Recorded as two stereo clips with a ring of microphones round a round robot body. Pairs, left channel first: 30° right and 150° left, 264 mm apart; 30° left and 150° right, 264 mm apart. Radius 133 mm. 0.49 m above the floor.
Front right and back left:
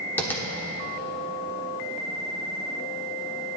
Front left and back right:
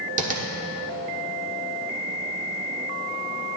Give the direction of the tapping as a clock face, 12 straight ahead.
4 o'clock.